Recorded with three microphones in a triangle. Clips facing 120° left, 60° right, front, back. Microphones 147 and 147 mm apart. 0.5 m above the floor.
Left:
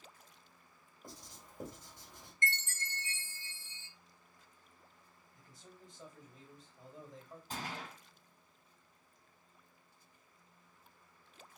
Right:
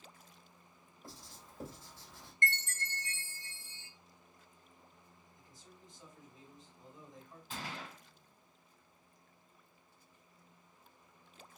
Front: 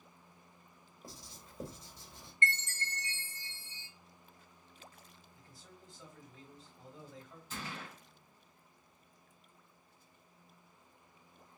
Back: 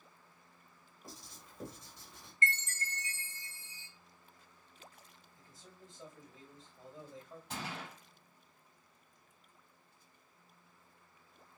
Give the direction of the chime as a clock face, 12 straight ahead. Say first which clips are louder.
Right 2 dB, even; 2 o'clock.